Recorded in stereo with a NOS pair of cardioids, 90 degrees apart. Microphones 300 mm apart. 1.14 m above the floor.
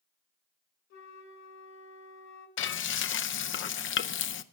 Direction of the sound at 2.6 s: 40° left.